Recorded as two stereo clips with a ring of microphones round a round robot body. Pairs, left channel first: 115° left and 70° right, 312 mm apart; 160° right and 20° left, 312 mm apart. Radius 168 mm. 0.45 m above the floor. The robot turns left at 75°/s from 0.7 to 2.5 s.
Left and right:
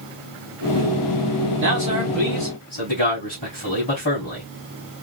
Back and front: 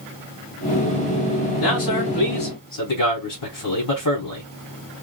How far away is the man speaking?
About 2.5 m.